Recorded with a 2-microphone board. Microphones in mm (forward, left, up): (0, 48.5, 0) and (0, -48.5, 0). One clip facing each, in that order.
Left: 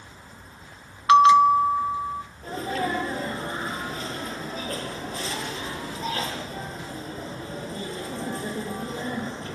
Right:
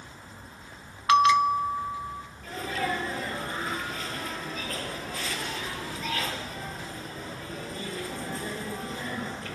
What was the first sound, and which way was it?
A bell, 30° left (ahead or behind).